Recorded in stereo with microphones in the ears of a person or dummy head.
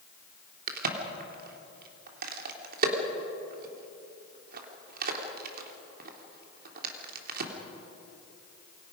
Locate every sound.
0.7 s a crack: 60° right (ahead or behind), 3 m